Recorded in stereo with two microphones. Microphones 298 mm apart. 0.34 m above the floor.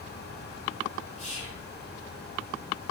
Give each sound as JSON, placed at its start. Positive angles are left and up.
{"t": 1.2, "sound": "whispering", "side_deg": 25, "distance_m": 1.0}